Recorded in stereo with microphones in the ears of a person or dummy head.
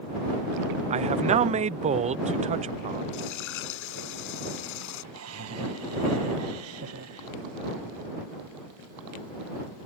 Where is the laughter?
85° right.